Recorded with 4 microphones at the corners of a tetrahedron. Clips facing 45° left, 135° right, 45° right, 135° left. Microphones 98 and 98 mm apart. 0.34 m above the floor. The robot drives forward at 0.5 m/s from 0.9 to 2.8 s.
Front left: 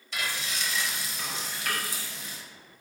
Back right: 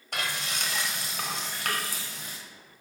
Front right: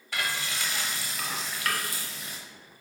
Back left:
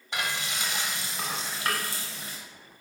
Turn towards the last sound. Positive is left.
turn(degrees=-170)